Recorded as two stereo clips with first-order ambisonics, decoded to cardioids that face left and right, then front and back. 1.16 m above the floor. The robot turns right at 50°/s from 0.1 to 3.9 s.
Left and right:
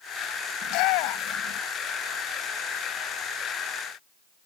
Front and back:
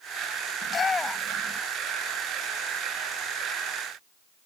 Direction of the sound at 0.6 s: 60° left.